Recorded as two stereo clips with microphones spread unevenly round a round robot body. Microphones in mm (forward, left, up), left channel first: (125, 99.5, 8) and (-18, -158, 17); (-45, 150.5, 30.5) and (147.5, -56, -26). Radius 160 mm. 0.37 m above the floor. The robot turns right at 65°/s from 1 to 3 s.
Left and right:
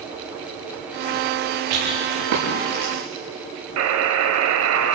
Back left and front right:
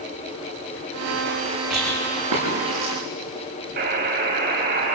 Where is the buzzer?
95° right, 1.7 m.